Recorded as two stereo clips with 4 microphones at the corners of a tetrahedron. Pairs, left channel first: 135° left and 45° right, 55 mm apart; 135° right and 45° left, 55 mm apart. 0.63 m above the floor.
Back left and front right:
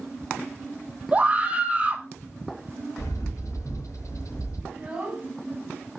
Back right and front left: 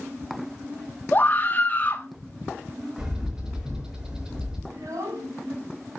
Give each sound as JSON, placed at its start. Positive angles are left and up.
{"t": 1.1, "sound": "a scream", "azimuth_deg": -95, "distance_m": 1.1}
{"t": 3.0, "sound": "a bird", "azimuth_deg": 120, "distance_m": 5.0}
{"t": 4.7, "sound": "a child speaking", "azimuth_deg": 30, "distance_m": 4.0}